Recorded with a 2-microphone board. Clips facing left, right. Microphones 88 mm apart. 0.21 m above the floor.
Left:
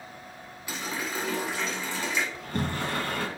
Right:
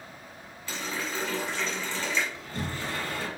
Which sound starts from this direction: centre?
A running tap, at 0.7 s.